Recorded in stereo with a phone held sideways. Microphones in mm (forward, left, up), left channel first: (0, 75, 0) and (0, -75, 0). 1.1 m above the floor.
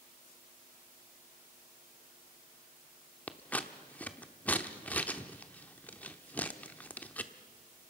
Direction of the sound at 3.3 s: 10° left (ahead or behind).